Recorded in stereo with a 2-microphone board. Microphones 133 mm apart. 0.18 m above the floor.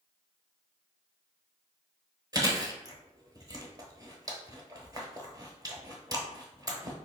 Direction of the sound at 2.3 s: 30° right (ahead or behind).